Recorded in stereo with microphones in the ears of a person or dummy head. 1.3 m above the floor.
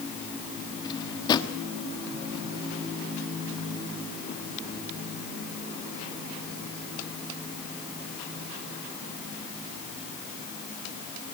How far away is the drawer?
About 1.2 m.